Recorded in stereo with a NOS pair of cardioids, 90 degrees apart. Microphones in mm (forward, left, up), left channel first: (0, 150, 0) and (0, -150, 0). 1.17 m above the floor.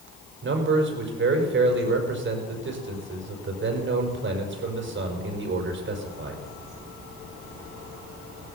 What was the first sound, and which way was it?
A man speaking, 40° right.